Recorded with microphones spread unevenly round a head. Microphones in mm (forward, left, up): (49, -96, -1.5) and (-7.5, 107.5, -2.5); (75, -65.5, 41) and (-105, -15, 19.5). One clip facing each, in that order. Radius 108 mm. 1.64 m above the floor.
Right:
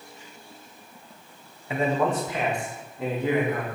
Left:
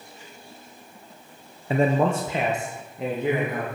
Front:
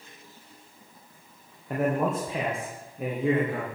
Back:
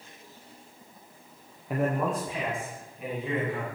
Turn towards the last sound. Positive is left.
turn(degrees=30)